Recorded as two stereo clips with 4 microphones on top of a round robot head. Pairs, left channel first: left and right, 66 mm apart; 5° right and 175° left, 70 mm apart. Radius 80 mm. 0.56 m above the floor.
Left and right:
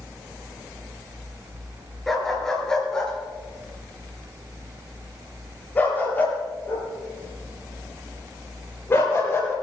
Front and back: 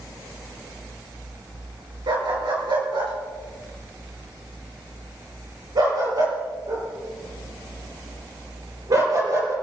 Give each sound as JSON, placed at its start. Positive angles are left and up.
{"t": 2.1, "sound": "a dog barking", "azimuth_deg": 175, "distance_m": 5.0}